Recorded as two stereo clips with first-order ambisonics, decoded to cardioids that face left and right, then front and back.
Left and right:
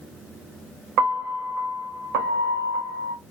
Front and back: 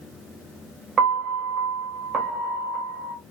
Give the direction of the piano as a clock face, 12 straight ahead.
4 o'clock.